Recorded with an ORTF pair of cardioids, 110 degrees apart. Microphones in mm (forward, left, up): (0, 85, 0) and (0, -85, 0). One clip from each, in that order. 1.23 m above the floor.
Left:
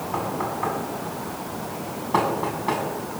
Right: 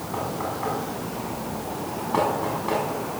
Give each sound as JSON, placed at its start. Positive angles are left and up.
{"t": 0.1, "sound": "knocking", "azimuth_deg": 20, "distance_m": 6.5}